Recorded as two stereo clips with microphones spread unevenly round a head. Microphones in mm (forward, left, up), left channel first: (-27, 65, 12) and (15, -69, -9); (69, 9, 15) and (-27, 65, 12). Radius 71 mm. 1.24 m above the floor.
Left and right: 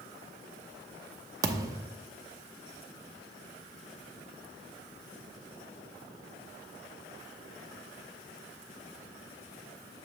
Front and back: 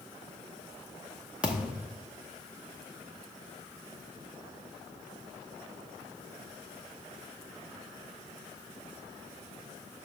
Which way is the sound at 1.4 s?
135° right.